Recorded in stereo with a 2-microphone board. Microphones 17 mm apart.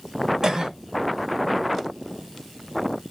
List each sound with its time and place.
0.4 s a cough: 40° right (ahead or behind), 2 m